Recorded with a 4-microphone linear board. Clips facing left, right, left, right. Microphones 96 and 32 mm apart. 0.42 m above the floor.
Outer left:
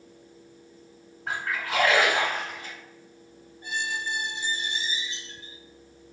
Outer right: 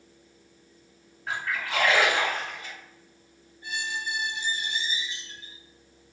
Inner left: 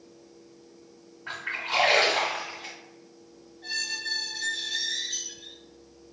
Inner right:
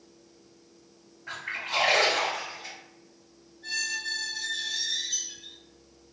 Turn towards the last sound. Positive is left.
turn(degrees=60)  # may be behind; listen again after turning